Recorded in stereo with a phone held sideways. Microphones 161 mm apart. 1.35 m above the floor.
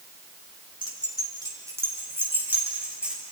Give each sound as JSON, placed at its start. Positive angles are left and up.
{"t": 0.8, "sound": "keys jangling", "side_deg": -30, "distance_m": 3.5}